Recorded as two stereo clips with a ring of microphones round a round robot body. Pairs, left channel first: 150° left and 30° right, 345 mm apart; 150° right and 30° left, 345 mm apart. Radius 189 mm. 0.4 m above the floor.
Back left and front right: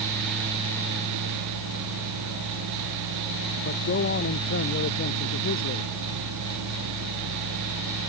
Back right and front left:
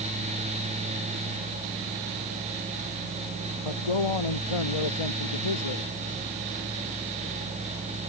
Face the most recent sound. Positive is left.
turn(degrees=-155)